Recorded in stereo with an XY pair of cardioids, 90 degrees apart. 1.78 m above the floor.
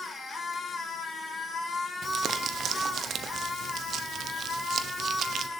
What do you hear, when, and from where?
0.0 s a machine running: 40° left, 4 m
2.0 s crumpling: 65° right, 1.0 m